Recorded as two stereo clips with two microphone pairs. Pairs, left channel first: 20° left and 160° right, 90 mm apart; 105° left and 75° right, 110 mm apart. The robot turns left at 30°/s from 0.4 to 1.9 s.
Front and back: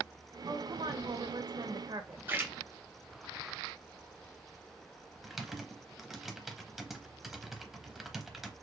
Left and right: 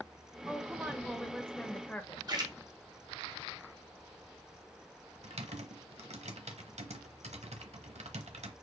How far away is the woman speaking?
About 1.1 m.